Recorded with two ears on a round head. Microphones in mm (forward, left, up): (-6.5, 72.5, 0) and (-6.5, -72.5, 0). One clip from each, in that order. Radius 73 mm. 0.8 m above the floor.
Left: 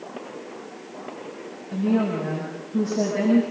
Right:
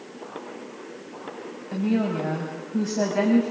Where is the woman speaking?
50° right (ahead or behind), 6 m.